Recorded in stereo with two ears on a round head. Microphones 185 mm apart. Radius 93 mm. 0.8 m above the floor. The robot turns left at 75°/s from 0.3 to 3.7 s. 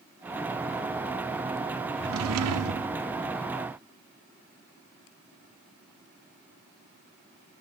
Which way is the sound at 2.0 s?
55° right.